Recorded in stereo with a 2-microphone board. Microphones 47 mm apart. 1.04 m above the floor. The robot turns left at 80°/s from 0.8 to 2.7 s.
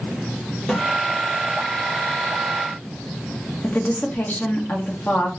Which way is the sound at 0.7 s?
5° left (ahead or behind).